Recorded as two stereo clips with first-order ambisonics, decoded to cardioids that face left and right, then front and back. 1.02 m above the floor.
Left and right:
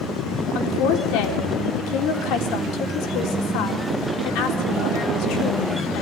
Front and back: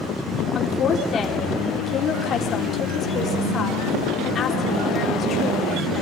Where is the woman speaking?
65° left, 3.5 m.